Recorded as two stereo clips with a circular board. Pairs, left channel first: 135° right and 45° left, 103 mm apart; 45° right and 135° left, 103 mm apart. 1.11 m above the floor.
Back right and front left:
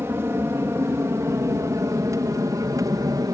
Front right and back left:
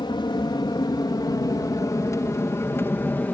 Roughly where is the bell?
No bell in this recording.